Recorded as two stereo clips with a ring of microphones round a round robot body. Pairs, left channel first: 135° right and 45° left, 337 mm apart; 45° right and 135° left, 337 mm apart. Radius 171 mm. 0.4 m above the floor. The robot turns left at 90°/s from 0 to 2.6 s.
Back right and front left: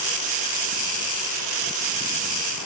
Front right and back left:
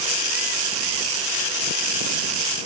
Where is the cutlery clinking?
No cutlery clinking in this recording.